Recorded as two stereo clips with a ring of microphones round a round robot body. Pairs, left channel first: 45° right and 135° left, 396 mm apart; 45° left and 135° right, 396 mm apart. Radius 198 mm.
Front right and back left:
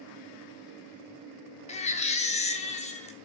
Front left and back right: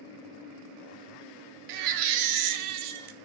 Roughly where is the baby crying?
Behind right.